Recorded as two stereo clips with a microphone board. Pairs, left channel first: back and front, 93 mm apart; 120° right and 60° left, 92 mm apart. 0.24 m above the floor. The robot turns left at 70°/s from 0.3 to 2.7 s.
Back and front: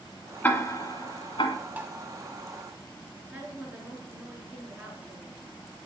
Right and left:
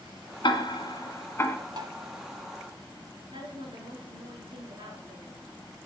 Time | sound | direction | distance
0.4 | ticking | 110° right | 1.3 m
1.8 | tapping | 70° left | 1.0 m
3.3 | a woman speaking | 75° left | 3.5 m